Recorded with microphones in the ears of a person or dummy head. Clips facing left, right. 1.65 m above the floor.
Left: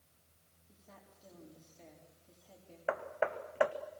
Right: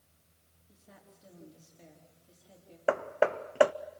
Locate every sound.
0.7 s a woman speaking: 5° right (ahead or behind), 4.5 m
2.9 s hammering: 50° right (ahead or behind), 0.7 m